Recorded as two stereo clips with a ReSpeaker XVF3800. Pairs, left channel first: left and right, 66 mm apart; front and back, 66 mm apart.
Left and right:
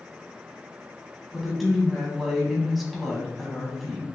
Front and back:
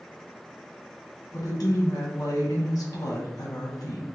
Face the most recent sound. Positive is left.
turn(degrees=-5)